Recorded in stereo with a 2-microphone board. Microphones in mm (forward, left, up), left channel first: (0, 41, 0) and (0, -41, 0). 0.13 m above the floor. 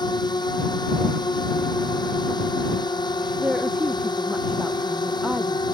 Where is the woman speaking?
10° right (ahead or behind).